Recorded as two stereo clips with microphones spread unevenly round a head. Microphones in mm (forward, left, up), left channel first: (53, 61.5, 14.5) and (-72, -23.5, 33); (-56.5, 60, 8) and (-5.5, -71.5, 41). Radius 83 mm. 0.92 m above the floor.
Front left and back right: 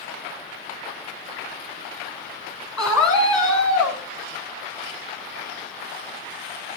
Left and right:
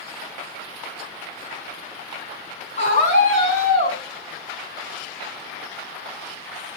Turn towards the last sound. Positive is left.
turn(degrees=150)